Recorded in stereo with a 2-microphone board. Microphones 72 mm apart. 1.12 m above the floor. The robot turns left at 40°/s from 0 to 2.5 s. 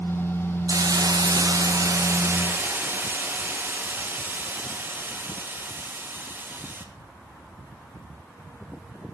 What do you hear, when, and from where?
0.7 s a hiss: 75° right, 1.3 m; by 6.8 s 145° right, 1.3 m